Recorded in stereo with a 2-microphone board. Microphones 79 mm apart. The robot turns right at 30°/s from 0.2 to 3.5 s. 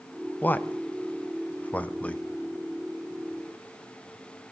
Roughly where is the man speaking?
Left.